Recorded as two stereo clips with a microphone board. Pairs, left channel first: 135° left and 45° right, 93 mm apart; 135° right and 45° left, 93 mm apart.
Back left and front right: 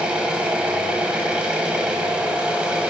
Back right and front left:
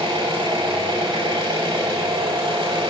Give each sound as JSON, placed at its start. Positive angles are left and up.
{"t": 0.0, "sound": "an engine running", "azimuth_deg": 35, "distance_m": 0.9}